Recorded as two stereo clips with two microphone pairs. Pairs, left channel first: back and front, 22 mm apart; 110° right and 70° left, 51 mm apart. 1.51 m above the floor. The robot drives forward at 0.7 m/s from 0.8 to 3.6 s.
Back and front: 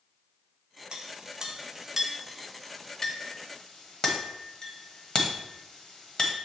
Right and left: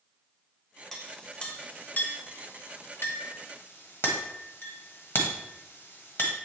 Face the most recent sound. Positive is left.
turn(degrees=-150)